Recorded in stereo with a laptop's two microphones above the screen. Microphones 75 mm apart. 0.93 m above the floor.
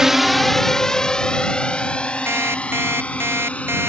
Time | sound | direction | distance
0.0 | a drone | 10° right (ahead or behind) | ?
2.3 | an alarm clock | 35° right (ahead or behind) | ?